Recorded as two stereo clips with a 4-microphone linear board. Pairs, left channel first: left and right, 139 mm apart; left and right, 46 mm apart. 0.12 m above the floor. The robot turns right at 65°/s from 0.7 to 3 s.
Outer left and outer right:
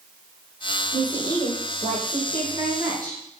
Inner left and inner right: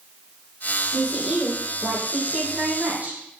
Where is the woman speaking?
165° right, 5 m; by 3.2 s 30° right, 5 m.